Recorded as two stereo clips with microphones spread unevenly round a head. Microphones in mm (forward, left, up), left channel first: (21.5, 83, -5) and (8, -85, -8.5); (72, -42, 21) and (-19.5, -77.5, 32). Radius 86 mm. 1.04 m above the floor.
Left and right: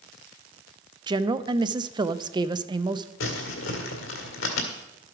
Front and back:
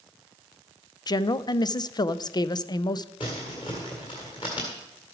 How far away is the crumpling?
About 1.8 m.